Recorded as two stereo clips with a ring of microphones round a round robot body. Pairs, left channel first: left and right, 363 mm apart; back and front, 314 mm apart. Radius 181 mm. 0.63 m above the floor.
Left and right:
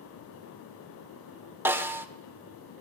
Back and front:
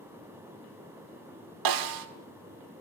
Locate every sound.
1.6 s a snare drum: 5° right, 1.7 m